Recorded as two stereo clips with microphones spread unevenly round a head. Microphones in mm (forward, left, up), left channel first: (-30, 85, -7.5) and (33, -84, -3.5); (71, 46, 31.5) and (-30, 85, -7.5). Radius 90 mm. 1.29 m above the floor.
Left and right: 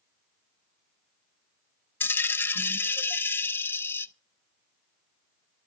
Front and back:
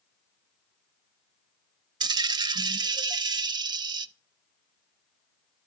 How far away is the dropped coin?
About 0.6 m.